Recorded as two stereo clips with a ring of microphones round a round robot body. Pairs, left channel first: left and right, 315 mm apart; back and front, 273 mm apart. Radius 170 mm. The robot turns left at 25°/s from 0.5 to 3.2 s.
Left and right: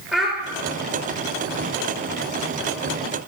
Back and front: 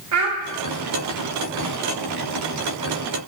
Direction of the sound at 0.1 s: Straight ahead.